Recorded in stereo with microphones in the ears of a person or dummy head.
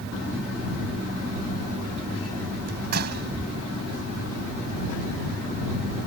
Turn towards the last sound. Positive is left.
turn(degrees=-55)  # may be behind; listen again after turning